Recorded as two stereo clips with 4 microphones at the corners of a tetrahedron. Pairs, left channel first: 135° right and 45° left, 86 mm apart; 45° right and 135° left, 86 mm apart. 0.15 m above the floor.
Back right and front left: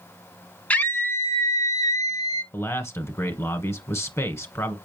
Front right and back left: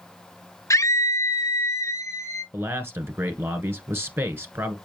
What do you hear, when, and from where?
0.7 s a scream: 70° right, 1.3 m; by 2.4 s 100° right, 3 m
2.5 s a man speaking: 175° right, 1.5 m